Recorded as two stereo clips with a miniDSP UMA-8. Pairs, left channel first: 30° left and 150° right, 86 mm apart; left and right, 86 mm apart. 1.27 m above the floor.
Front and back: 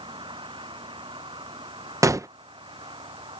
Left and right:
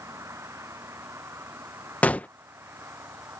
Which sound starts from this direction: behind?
A gunshot, at 2.0 s.